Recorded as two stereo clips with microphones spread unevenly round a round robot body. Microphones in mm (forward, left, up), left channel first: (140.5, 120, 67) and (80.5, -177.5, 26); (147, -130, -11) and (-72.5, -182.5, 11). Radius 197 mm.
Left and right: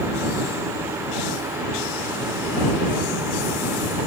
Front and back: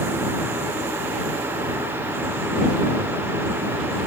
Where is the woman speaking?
I don't hear a woman speaking.